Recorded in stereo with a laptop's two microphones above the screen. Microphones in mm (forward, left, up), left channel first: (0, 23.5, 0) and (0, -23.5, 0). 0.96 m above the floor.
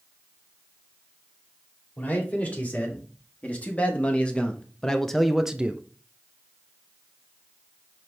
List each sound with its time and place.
2.0 s a man speaking: 40° left (ahead or behind), 2.5 m; by 5.8 s 25° right (ahead or behind), 0.5 m